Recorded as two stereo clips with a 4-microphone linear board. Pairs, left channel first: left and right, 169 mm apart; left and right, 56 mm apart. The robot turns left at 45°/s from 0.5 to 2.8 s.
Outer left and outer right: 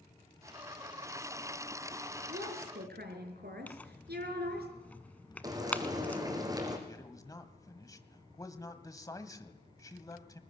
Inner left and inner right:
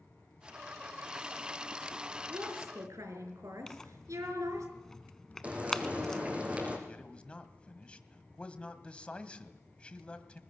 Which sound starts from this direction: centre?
Tearing paper, at 3.7 s.